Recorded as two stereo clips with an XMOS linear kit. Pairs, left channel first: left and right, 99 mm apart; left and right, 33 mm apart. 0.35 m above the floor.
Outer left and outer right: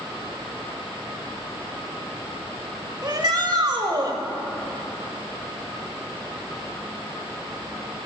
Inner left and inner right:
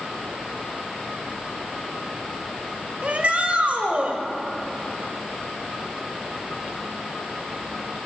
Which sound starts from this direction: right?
A shout, at 3.0 s.